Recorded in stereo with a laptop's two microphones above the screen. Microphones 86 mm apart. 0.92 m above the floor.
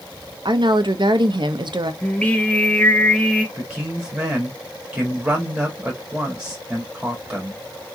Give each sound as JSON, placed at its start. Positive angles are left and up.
{"t": 0.5, "sound": "a woman speaking", "side_deg": -60, "distance_m": 0.7}
{"t": 2.0, "sound": "singing", "side_deg": 15, "distance_m": 0.9}
{"t": 3.5, "sound": "a man speaking", "side_deg": -10, "distance_m": 1.8}